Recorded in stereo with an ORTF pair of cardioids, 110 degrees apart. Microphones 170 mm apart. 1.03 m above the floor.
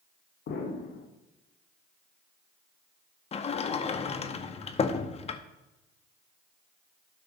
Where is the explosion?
70° left, 1.6 m.